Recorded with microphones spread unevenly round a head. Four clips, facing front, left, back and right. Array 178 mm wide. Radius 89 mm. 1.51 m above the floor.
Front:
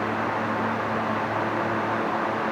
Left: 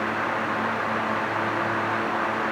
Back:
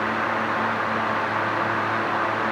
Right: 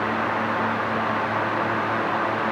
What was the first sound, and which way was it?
Only background noise.